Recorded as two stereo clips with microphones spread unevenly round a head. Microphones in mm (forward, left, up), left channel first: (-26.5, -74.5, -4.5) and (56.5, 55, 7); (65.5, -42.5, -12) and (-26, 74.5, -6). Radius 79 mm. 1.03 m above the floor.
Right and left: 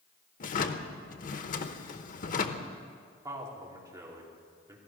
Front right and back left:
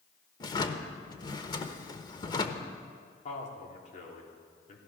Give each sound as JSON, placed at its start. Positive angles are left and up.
{"t": 0.4, "sound": "a drawer", "azimuth_deg": -110, "distance_m": 0.9}
{"t": 3.2, "sound": "a man speaking", "azimuth_deg": -15, "distance_m": 3.0}